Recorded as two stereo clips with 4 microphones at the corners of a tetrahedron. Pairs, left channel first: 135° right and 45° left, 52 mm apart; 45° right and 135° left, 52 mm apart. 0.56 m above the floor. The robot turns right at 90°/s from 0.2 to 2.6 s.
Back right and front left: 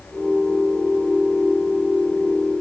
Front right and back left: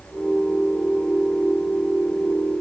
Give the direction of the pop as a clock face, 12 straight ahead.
I don't hear a pop.